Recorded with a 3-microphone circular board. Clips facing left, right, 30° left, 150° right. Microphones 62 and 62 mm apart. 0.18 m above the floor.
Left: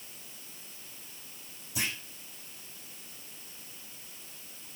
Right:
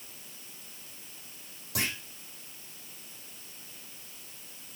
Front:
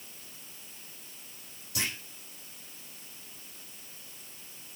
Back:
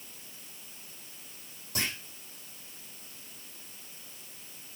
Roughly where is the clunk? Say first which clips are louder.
Right 1 dB, back 1 dB; right.